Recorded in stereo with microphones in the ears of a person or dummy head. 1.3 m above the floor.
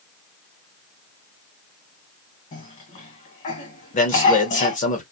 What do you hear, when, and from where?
2.5 s a cough: 35° left (ahead or behind), 1.4 m
3.9 s a man speaking: 35° left (ahead or behind), 1.0 m